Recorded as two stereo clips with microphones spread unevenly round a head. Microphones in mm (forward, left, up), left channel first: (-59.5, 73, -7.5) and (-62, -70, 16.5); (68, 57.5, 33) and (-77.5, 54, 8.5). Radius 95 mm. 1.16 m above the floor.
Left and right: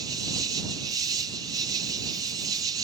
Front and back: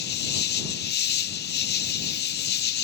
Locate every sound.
0.0 s an insect: 15° right